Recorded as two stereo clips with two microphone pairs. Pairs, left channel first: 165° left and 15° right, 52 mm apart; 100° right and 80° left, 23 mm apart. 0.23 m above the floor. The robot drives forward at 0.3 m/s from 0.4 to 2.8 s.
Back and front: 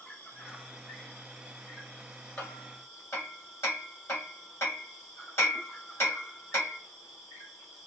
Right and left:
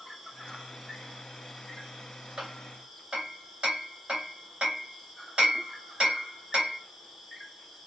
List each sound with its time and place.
0.0 s an insect: 125° left, 2.5 m; by 7.9 s 145° left, 2.5 m
2.4 s hammering: 135° left, 2 m